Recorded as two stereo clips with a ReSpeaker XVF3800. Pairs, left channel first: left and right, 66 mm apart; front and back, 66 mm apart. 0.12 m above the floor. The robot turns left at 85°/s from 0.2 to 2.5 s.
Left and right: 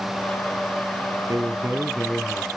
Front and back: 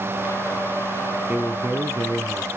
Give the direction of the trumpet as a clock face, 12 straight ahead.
No trumpet in this recording.